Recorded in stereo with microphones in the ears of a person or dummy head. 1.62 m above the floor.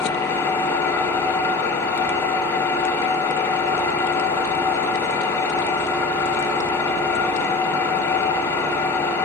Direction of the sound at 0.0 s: 15° left (ahead or behind).